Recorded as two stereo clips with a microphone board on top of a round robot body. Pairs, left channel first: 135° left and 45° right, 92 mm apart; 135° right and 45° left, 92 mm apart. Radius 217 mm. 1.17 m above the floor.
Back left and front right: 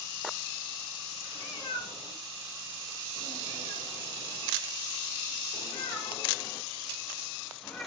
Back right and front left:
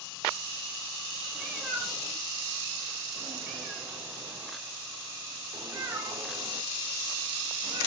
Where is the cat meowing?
130° left, 4.5 m; by 7.9 s 60° left, 1.4 m.